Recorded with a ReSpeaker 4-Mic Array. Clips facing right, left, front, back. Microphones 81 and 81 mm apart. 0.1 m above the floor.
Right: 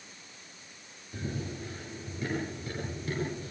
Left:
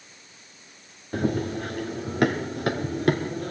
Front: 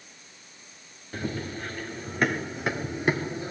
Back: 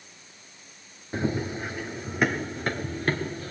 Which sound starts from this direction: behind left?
Running footsteps, at 1.1 s.